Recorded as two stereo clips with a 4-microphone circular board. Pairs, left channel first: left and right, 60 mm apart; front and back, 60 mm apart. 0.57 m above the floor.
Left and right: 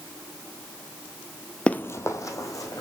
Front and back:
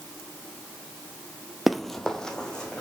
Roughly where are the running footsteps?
Left.